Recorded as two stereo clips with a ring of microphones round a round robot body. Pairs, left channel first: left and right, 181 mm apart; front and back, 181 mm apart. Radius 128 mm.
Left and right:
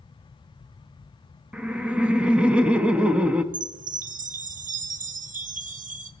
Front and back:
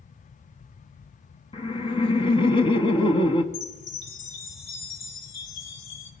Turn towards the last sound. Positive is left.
turn(degrees=-40)